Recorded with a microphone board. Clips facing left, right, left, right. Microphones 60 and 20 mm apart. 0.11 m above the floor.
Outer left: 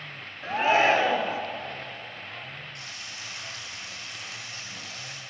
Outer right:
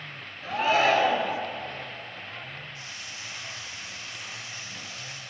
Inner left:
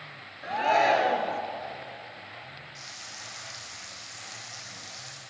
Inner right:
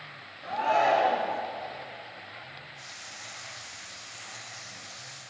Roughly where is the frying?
Left.